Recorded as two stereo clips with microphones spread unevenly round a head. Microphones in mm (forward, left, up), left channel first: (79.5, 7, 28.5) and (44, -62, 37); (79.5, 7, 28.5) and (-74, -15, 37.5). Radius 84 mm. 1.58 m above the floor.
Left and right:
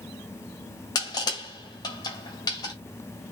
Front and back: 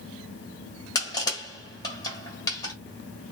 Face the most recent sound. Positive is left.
turn(degrees=70)